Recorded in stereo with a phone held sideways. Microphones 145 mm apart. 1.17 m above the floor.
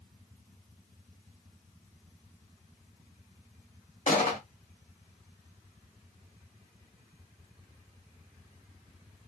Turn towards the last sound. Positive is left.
turn(degrees=60)  # may be behind; listen again after turning